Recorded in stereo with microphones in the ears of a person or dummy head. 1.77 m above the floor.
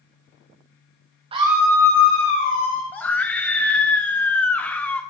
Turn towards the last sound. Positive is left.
turn(degrees=10)  # may be behind; listen again after turning